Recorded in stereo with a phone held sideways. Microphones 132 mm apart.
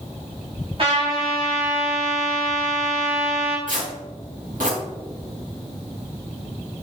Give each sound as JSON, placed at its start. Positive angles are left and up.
{"t": 0.8, "sound": "a trumpet", "side_deg": -45, "distance_m": 3.0}
{"t": 3.7, "sound": "tearing paper", "side_deg": -90, "distance_m": 2.5}